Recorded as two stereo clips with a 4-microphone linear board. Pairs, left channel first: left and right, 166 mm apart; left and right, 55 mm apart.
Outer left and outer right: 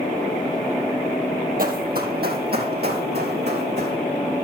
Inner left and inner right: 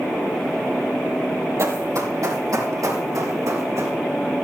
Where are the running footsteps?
60° right (ahead or behind), 1.8 m; by 4.0 s 80° right, 4 m.